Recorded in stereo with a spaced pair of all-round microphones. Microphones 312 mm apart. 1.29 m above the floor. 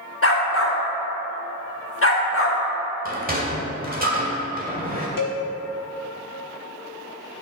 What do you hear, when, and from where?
0.2 s a dog barking: 45° left (ahead or behind), 1.1 m
3.0 s a sliding door: 30° right (ahead or behind), 1.4 m
5.2 s a cowbell: 85° left, 1.0 m